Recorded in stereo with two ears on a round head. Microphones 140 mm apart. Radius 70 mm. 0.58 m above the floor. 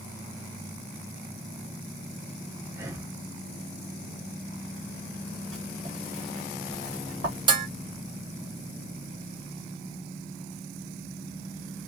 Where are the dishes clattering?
30° right (ahead or behind), 0.5 m.